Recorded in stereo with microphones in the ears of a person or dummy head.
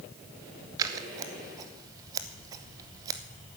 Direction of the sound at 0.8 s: 25° right (ahead or behind).